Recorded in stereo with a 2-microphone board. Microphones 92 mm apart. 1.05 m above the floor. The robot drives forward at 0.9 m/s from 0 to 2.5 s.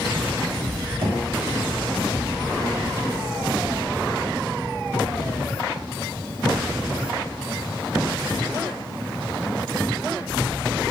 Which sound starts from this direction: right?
Knocking, at 1.0 s.